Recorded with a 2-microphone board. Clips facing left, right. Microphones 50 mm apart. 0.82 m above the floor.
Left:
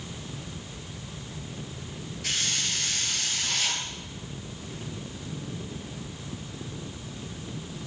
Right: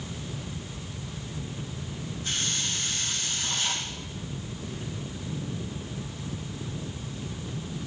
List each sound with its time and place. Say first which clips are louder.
2.2 s a hiss: left 2 dB; 80° left, 3.5 m